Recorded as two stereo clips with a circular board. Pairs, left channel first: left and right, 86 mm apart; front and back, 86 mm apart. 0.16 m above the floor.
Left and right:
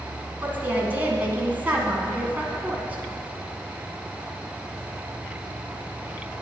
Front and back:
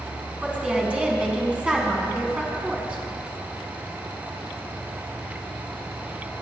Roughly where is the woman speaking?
Behind right.